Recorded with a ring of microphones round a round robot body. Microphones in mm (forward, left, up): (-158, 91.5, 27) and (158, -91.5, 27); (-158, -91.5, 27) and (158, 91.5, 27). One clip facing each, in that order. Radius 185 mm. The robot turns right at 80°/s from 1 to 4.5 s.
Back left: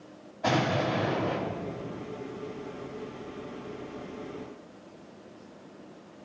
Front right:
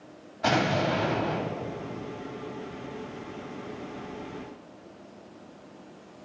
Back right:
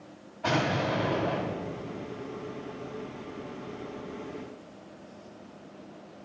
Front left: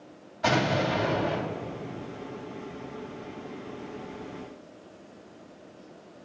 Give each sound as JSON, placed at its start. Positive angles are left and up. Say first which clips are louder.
{"t": 0.4, "sound": "an explosion", "louder": "front right 1 dB, front left 2 dB", "azimuth_deg": 25, "distance_m": 2.5}